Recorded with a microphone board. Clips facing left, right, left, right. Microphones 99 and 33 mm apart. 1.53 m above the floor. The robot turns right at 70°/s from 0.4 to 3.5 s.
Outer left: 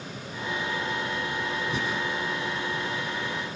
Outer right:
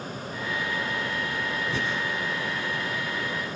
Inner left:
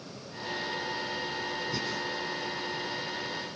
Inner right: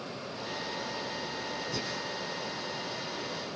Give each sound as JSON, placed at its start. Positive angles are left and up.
{"t": 1.7, "sound": "breathing", "side_deg": 20, "distance_m": 6.5}